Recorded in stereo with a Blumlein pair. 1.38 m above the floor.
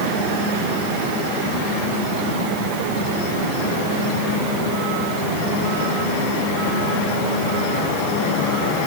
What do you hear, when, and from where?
Only background noise.